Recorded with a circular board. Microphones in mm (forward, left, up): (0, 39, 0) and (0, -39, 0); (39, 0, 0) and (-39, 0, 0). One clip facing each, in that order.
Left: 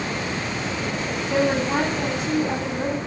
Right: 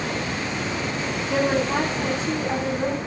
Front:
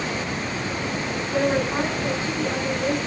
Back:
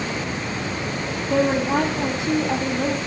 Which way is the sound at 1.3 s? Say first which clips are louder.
Left 1 dB, back 3 dB; 175° left.